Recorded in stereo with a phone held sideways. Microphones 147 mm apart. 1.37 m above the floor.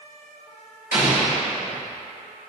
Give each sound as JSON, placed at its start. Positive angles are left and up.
{"t": 0.9, "sound": "an explosion", "side_deg": 75, "distance_m": 2.0}